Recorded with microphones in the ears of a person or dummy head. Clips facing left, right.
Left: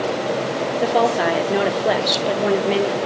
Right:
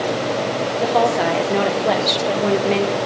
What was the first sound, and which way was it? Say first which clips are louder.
A woman speaking: even; 10° left (ahead or behind).